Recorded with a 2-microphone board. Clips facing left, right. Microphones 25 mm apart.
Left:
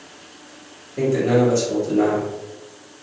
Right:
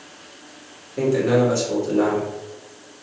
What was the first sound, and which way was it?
A man speaking, 15° right (ahead or behind).